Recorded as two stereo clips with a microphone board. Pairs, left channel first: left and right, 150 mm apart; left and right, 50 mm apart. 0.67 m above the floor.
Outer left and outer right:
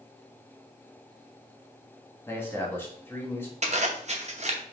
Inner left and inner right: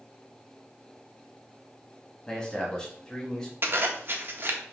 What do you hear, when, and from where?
2.3 s a man speaking: 15° left (ahead or behind), 1.2 m
3.6 s a zipper: 50° right (ahead or behind), 0.7 m